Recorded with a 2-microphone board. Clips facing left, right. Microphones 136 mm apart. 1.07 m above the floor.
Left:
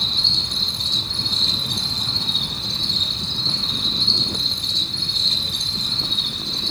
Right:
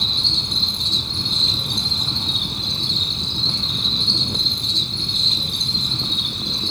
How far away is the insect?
About 7 m.